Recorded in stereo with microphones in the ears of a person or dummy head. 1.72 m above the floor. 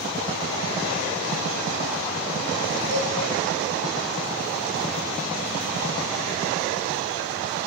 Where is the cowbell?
65° left (ahead or behind), 2.5 m.